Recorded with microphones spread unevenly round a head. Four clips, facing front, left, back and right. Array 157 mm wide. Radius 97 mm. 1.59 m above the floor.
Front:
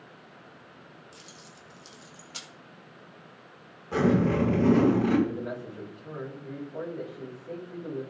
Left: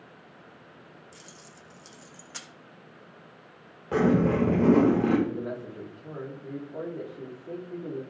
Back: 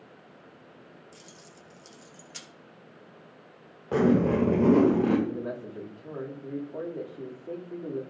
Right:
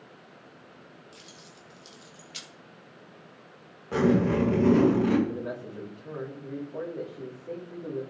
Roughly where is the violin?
No violin in this recording.